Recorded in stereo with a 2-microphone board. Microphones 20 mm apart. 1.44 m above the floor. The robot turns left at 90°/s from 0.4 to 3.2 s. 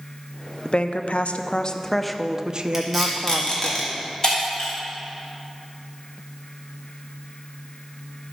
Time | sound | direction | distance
0.7 | a woman speaking | 130° left | 0.6 m
2.7 | tape being pulled | 15° right (ahead or behind) | 2.5 m
4.2 | breaking glass | 35° left (ahead or behind) | 3.5 m